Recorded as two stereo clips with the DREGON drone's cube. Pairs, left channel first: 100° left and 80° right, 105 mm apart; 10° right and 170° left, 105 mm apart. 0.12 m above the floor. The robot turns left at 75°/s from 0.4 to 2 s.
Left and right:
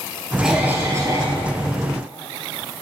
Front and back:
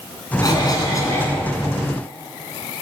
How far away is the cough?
About 2 m.